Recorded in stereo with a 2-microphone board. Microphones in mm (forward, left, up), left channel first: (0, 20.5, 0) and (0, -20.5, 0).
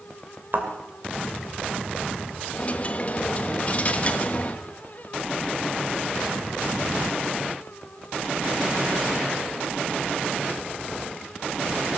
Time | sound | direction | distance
0.5 | a thud | 50° right (ahead or behind) | 2.5 m
2.5 | a dropped coin | 35° left (ahead or behind) | 1.1 m